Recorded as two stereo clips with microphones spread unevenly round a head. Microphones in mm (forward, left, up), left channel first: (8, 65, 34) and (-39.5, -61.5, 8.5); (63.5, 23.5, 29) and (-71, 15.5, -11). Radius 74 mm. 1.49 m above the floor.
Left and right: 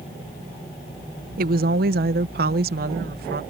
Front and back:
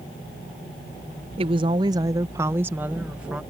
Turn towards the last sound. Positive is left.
turn(degrees=-90)